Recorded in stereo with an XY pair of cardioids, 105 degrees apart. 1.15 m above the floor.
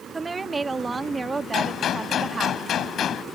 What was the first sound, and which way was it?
A woman speaking, 20° right.